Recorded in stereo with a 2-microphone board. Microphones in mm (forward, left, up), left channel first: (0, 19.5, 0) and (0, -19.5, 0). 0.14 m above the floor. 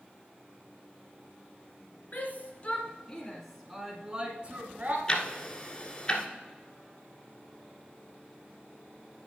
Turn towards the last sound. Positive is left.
turn(degrees=20)  # may be behind; listen again after turning